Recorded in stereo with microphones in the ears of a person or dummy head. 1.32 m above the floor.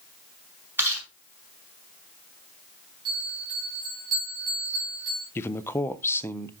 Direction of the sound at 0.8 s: 15° right (ahead or behind).